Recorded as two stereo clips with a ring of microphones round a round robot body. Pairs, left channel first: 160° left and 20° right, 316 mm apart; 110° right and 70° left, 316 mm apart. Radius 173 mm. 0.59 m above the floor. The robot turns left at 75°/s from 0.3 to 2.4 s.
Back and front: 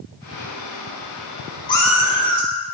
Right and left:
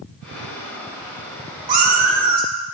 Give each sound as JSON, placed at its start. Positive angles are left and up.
{"t": 1.7, "sound": "a cat meowing", "azimuth_deg": 85, "distance_m": 1.7}